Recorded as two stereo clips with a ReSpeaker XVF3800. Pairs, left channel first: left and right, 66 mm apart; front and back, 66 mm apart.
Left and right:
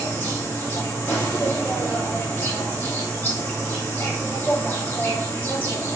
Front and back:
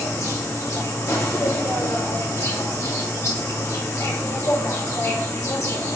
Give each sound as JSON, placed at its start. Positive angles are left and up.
{"t": 0.0, "sound": "an insect", "azimuth_deg": 30, "distance_m": 2.0}